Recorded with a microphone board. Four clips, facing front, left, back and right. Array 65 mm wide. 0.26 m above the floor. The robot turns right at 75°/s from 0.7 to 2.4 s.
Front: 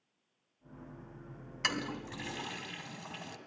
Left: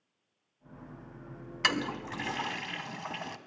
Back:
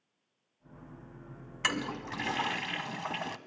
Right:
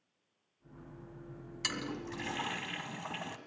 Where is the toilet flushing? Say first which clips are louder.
Left 8 dB, back 3 dB; 105° left, 1.7 m; by 3.4 s 160° left, 1.7 m.